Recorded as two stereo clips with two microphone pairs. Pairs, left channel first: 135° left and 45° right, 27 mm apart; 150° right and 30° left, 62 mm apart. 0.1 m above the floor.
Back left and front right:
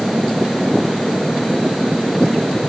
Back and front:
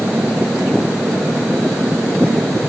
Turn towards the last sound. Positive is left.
No sound to turn to.